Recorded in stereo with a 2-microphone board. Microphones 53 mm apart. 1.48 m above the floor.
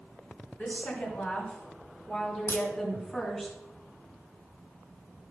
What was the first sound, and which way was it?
A woman speaking, 40° left (ahead or behind).